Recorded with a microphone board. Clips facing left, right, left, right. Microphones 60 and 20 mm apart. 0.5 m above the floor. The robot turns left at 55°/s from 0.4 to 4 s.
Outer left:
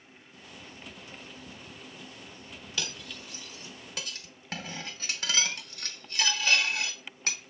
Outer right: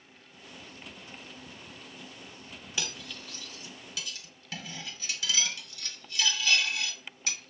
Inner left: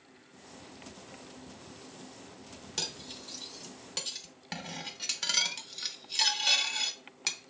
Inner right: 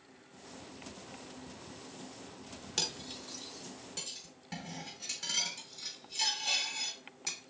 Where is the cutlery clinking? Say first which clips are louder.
Even, inner right 1 dB; 15° right (ahead or behind), 0.5 m; by 7.4 s 45° left (ahead or behind), 0.5 m.